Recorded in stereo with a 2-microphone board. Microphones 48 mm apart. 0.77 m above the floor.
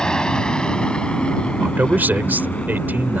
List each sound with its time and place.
0.0 s an aircraft: 15° left (ahead or behind); by 3.2 s 20° left (ahead or behind)
1.6 s a man speaking: 40° right (ahead or behind)